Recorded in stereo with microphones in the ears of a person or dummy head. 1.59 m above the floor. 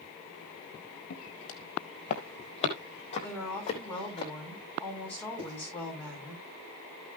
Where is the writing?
35° right (ahead or behind), 8.5 m.